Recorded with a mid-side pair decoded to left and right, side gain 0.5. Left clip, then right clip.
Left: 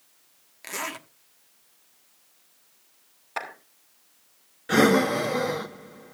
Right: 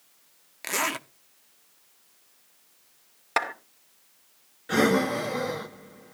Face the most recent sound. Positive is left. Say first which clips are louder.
# left 3 dB
turn(degrees=30)